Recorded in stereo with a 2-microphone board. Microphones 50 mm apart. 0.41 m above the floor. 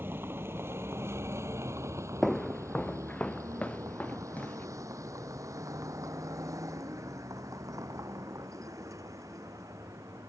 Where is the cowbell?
No cowbell in this recording.